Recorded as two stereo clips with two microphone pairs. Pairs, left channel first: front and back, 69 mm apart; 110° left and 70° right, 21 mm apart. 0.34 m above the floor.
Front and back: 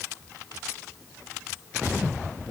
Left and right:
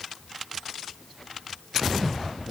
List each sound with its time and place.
Only background noise.